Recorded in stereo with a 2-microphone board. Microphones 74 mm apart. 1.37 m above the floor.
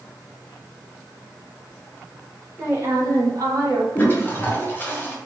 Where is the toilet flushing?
25° left (ahead or behind), 0.7 m.